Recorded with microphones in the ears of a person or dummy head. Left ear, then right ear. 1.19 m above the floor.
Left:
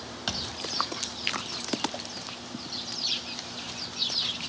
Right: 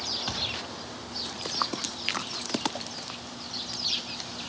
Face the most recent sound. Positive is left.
turn(degrees=25)  # may be behind; listen again after turning